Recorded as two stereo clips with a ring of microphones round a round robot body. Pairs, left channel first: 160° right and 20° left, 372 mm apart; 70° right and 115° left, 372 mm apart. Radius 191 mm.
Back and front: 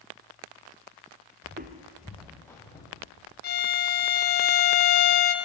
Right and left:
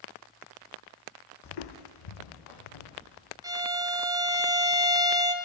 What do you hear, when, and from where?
1.4 s footsteps: 35° right, 1.0 m; by 3.3 s 80° right, 3.5 m
3.4 s a violin: straight behind, 0.6 m